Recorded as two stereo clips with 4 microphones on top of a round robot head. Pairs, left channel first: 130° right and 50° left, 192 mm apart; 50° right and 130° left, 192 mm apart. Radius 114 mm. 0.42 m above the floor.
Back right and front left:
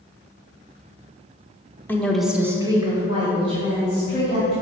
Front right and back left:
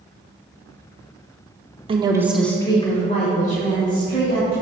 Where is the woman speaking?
160° left, 1.2 m; by 4.5 s 10° right, 3.5 m.